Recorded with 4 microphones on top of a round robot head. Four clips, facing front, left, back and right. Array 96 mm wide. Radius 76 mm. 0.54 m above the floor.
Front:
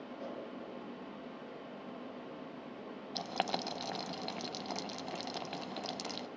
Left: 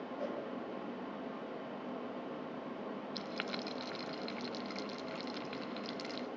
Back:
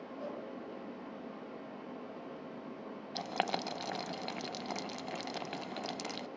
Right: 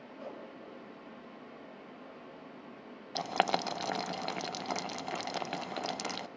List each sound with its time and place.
0.2 s a whoosh: 100° left, 5 m
3.1 s boiling: 90° right, 0.6 m